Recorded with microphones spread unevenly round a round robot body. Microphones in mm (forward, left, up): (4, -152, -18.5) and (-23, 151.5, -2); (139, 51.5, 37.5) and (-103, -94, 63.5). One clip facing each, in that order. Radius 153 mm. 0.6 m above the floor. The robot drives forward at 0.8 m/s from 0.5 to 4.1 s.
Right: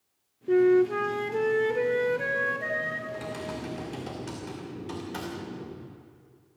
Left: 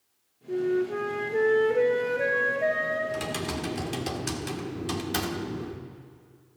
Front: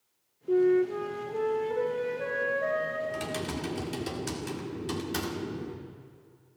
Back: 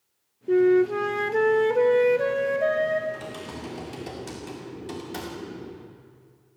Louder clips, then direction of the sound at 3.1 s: Left 4 dB, front 2 dB; 65° left.